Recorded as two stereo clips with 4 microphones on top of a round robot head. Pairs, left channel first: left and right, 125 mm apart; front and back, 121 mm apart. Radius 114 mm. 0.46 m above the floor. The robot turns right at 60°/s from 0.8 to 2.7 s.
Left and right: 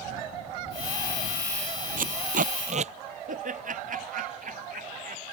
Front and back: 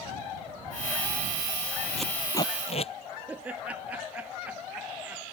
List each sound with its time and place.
2.0 s tape being pulled: 95° right; by 2.9 s 50° right
3.3 s laughter: 100° right